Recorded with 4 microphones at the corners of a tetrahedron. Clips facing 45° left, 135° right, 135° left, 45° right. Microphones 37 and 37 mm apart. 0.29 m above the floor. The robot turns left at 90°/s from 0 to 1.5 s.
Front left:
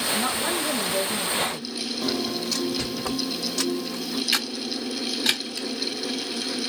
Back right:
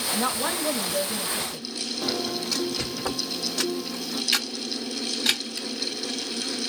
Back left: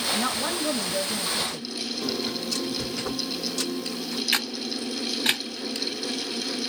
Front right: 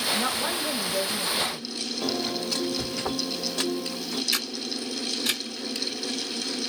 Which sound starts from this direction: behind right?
A woman speaking, at 0.1 s.